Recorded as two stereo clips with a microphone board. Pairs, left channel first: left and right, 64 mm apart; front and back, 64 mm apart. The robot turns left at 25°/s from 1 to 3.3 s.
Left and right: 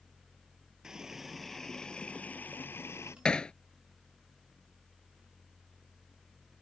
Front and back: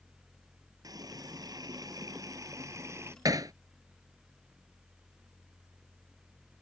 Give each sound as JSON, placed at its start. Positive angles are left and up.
{"t": 0.8, "sound": "a running tap", "azimuth_deg": -170}
{"t": 3.2, "sound": "hammering", "azimuth_deg": 165}